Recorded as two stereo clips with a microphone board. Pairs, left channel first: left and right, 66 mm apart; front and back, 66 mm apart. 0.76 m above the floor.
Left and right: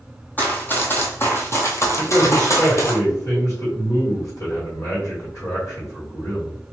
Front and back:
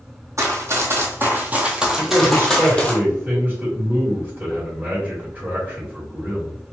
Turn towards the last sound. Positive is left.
turn(degrees=120)